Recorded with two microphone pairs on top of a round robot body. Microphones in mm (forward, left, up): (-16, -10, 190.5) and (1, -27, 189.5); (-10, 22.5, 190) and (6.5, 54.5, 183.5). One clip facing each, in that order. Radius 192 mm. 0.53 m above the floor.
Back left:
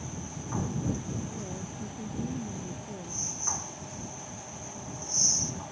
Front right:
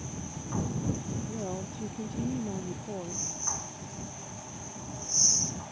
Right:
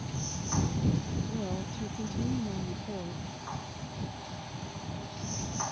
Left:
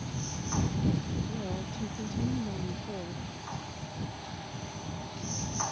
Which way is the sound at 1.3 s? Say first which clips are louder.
Front right 3 dB, right 1 dB; 35° right.